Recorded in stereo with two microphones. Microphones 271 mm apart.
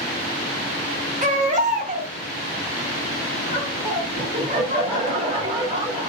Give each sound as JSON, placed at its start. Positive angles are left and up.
{"t": 1.2, "sound": "a baby crying", "side_deg": -25, "distance_m": 0.9}
{"t": 3.5, "sound": "laughter", "side_deg": -20, "distance_m": 1.8}